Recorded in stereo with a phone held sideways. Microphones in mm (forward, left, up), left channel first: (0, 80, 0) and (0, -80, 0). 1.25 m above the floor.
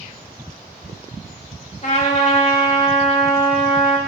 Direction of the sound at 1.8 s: 50° left (ahead or behind).